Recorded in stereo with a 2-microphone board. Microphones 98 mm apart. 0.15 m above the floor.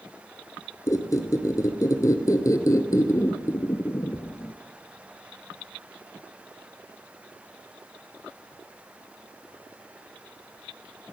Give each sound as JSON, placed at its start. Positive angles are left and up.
{"t": 0.9, "sound": "a squeak", "side_deg": 30, "distance_m": 1.1}